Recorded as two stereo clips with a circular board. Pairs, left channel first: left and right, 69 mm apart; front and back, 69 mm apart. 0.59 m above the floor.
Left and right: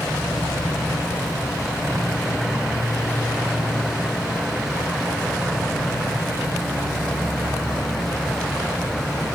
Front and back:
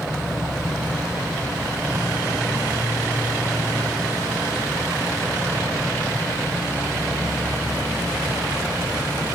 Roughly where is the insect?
Left.